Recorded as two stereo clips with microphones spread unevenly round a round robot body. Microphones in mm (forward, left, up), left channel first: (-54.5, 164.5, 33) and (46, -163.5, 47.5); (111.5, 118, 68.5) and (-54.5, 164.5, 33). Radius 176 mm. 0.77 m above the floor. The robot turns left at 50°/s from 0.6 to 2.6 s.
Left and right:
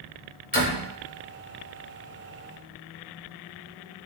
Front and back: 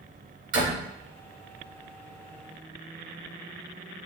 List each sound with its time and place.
0.5 s a door slam: 170° left, 2.5 m; by 0.9 s 155° left, 2.5 m